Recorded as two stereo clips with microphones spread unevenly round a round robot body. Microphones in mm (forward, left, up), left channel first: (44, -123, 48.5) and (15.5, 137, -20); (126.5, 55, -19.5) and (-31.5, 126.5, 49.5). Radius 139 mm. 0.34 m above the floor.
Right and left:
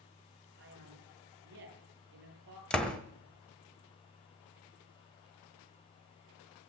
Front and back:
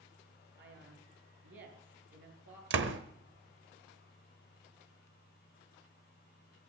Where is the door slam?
175° left, 1.1 m.